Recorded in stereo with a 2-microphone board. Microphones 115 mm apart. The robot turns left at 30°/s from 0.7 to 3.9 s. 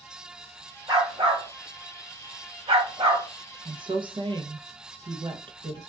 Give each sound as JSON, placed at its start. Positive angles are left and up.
{"t": 0.9, "sound": "a dog barking", "side_deg": -35, "distance_m": 1.1}
{"t": 3.6, "sound": "a woman speaking", "side_deg": -45, "distance_m": 0.6}